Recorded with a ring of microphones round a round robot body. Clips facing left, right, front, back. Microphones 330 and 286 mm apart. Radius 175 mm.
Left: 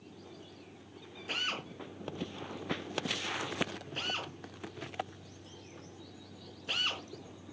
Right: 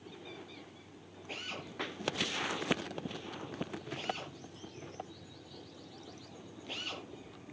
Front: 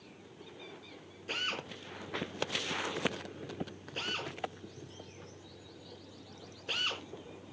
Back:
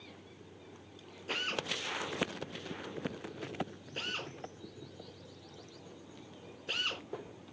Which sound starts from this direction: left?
A drill, at 1.3 s.